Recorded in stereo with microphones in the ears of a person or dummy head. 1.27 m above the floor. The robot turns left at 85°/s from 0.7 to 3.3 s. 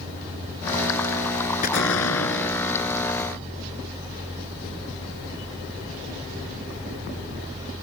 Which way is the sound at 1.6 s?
130° left.